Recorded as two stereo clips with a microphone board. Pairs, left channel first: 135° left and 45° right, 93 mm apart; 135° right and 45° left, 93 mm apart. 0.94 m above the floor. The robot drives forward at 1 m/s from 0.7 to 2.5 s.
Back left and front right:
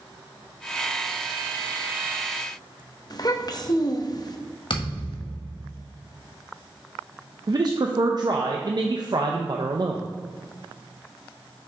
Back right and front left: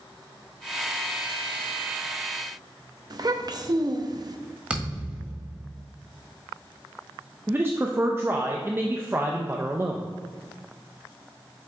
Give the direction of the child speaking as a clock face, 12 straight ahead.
9 o'clock.